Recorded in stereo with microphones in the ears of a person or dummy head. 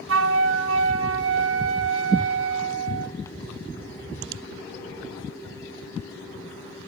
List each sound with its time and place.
0.1 s a flute: 90° right, 1.6 m